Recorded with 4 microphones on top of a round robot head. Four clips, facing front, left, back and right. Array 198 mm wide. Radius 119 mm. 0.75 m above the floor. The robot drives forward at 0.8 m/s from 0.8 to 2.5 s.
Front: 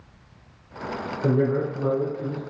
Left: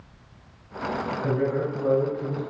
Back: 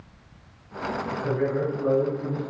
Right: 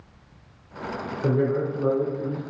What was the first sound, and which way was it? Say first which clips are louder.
A man speaking: right 3 dB, front 4 dB; 40° right.